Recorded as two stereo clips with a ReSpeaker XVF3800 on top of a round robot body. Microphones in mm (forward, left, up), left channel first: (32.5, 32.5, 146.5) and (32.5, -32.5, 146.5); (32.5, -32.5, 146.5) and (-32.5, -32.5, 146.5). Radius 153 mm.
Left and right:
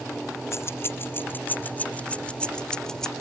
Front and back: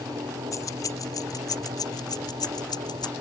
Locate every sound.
0.5 s keys jangling: 40° left; by 3.1 s 10° left